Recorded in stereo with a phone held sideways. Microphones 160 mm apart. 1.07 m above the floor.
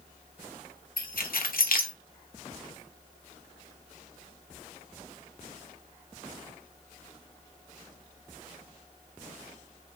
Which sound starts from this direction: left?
Keys jangling, at 1.0 s.